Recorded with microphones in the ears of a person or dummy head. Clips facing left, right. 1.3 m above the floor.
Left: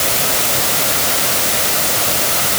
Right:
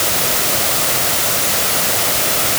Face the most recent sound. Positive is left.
No sound to turn to.